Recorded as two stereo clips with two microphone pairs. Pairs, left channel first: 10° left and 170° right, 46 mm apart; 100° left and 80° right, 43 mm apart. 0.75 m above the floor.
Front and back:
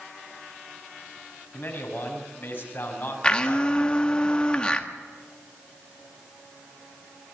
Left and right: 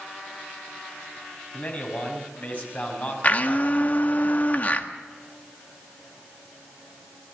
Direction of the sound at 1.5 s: 55° left.